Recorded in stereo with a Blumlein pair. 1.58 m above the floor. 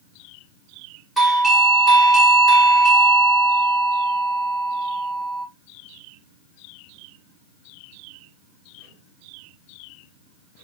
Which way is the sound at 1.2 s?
5° right.